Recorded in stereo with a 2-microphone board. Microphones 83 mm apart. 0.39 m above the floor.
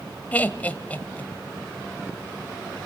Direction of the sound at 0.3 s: 20° left (ahead or behind).